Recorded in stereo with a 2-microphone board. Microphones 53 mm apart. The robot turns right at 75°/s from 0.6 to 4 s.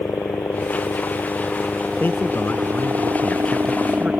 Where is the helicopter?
70° left (ahead or behind); by 4.2 s 25° right (ahead or behind).